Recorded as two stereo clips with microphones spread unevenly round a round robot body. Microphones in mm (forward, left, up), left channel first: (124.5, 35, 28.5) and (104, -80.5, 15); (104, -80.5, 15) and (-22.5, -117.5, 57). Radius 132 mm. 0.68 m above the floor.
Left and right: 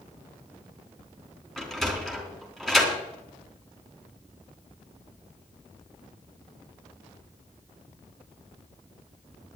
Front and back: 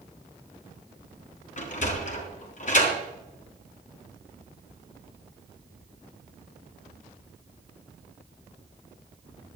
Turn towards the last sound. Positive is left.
turn(degrees=-10)